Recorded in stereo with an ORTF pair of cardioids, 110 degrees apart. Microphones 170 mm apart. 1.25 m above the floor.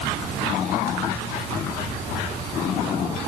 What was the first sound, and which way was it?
Only background noise.